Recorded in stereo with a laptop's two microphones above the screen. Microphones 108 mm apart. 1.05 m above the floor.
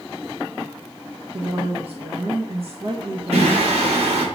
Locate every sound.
1.3 s a woman speaking: 65° right (ahead or behind), 1.2 m
3.3 s singing: 80° right, 3 m